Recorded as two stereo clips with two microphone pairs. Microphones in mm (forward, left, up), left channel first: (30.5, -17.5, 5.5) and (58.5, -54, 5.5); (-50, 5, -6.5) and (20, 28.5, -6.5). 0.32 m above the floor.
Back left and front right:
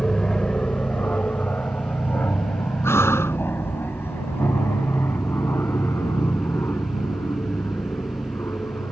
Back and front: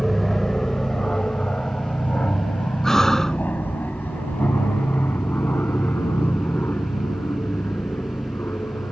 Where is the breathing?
115° left.